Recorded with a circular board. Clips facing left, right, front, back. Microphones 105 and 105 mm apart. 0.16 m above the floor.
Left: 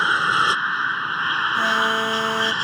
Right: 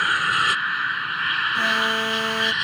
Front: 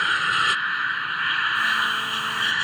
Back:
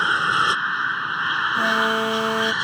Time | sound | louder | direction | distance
0.0 | an aircraft | left 3 dB, back 3 dB | 135° left | ?
1.5 | an alarm | left 3 dB, back 4 dB | 170° left | ?